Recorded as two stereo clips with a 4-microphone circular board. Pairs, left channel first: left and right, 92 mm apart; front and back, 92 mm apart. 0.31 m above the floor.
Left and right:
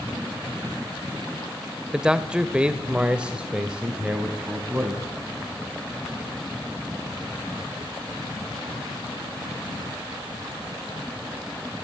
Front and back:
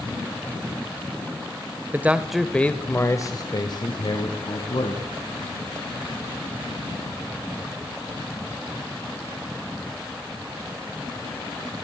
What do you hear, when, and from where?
1.9 s a man speaking: 160° right, 1.3 m; by 5.0 s 10° right, 3 m